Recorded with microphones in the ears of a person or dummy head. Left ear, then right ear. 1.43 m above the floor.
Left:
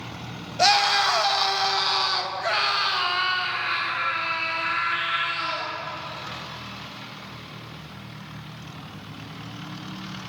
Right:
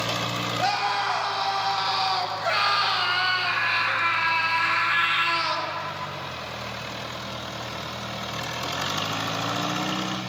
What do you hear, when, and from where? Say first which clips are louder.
0.6 s a scream: left 7 dB; 45° left (ahead or behind), 1.3 m; by 5.7 s 25° right (ahead or behind), 2.5 m